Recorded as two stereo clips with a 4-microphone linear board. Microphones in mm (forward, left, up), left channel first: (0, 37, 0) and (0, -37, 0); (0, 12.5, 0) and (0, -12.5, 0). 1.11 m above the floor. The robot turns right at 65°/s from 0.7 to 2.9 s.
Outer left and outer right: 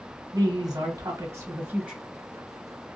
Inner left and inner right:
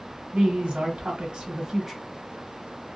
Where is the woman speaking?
95° right, 1.1 m; by 2.0 s 10° right, 1.1 m.